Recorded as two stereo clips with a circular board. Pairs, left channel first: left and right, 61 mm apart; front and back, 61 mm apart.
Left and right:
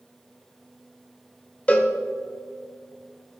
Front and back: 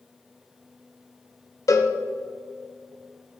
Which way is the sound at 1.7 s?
25° left.